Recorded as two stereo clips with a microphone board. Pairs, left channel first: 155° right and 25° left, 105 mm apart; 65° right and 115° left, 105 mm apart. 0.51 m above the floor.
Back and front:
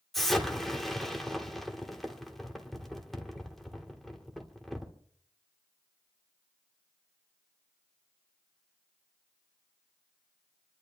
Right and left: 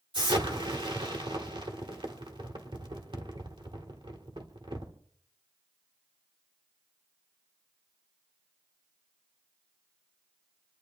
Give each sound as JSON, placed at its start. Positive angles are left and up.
{"t": 0.1, "sound": "an explosion", "azimuth_deg": 115, "distance_m": 1.9}